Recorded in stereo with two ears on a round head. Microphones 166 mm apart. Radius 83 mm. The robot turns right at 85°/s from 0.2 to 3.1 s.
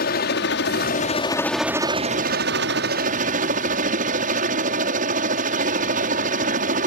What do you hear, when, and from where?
0.0 s a helicopter: 65° left; by 6.9 s 50° right